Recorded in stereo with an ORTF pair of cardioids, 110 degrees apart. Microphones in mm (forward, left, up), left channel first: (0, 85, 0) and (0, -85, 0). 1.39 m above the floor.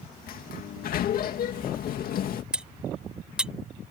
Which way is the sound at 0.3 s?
60° left.